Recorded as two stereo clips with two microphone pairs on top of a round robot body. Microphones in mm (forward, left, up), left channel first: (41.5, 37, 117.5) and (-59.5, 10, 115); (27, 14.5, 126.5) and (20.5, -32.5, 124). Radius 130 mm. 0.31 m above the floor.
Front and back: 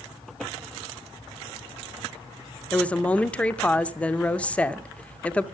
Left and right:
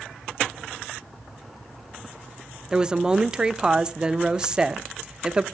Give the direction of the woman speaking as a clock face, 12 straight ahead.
2 o'clock.